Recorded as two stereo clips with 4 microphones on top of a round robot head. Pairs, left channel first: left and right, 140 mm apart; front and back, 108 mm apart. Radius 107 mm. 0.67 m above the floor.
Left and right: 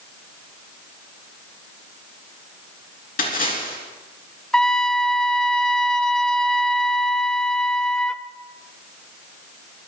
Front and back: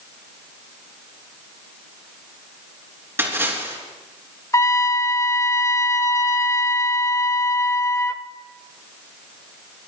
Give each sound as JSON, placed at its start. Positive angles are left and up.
{"t": 3.2, "sound": "a splash", "azimuth_deg": 110, "distance_m": 4.0}
{"t": 4.5, "sound": "a trumpet", "azimuth_deg": 10, "distance_m": 0.7}